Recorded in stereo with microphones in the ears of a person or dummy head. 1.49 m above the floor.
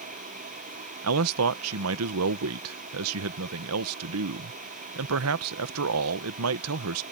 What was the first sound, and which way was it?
A fan, 40° right (ahead or behind).